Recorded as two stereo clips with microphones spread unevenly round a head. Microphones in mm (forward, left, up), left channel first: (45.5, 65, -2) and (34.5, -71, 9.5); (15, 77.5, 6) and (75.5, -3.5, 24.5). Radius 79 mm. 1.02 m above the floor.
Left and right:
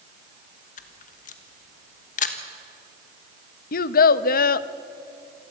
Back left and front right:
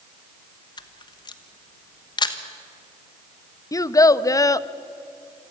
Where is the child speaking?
70° left, 0.6 m.